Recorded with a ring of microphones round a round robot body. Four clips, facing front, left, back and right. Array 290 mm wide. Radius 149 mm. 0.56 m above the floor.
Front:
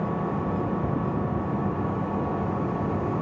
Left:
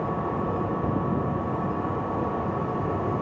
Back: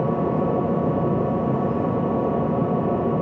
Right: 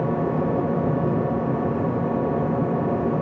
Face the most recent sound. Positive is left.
turn(degrees=-145)